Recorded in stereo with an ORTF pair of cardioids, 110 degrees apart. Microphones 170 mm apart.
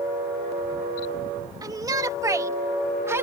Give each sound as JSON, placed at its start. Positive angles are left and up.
{"t": 1.6, "sound": "a shout", "azimuth_deg": -20}